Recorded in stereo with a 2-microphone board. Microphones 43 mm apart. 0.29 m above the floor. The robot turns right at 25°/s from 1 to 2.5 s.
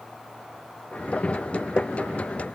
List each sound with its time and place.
Only background noise.